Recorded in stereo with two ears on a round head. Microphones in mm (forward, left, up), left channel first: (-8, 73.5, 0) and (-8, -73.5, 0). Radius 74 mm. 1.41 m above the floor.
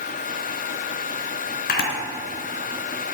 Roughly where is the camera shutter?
Left.